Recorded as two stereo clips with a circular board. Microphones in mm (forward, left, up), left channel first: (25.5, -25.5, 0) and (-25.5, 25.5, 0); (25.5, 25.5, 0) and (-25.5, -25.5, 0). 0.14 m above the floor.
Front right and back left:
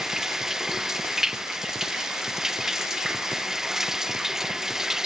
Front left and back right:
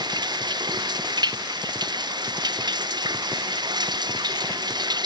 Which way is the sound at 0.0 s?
140° right.